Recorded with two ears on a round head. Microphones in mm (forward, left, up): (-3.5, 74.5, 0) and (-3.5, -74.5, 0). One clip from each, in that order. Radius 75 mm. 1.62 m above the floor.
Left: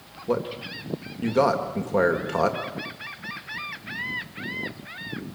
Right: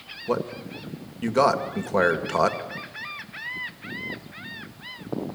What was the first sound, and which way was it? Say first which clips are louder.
A man speaking: left 1 dB; 30° right (ahead or behind).